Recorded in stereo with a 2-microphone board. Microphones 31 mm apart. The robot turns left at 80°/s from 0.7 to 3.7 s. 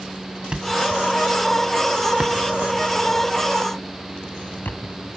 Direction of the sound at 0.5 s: 30° right (ahead or behind).